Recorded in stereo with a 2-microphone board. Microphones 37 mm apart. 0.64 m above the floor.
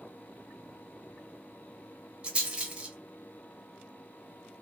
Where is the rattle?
30° right (ahead or behind), 1.5 m.